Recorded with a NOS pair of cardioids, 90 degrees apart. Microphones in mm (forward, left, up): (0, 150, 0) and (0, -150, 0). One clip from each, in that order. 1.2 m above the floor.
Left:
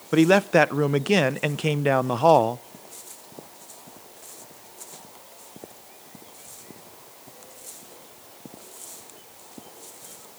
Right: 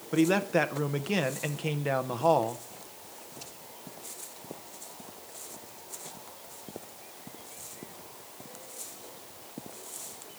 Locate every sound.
0.1 s a man speaking: 35° left, 0.5 m